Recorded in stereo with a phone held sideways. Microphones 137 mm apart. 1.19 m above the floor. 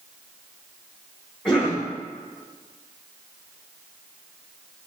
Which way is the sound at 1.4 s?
5° left (ahead or behind).